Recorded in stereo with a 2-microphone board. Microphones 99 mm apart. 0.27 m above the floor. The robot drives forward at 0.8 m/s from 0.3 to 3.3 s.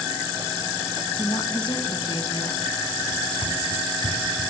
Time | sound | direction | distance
1.2 | a woman speaking | 45° left (ahead or behind) | 2.5 m
3.1 | running footsteps | 50° right (ahead or behind) | 4.5 m